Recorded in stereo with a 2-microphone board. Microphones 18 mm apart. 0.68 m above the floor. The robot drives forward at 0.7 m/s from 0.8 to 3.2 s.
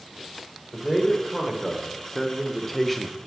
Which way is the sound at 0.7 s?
5° left (ahead or behind).